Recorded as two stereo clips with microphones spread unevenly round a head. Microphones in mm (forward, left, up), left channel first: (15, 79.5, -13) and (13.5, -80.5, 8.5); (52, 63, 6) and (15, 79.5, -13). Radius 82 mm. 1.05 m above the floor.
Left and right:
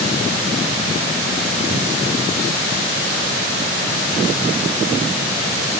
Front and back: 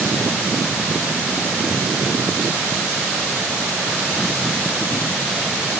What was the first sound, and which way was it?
Only background noise.